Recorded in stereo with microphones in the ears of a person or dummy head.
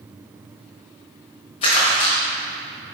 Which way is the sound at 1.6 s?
25° left (ahead or behind).